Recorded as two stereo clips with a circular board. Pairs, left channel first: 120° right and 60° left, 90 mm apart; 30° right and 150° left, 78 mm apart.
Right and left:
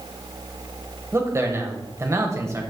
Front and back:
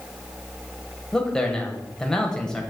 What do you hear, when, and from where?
1.1 s a man speaking: 45° left, 1.0 m